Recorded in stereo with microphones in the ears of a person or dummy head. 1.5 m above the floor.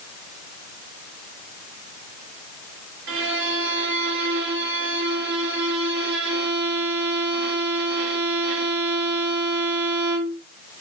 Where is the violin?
50° right (ahead or behind), 0.8 m.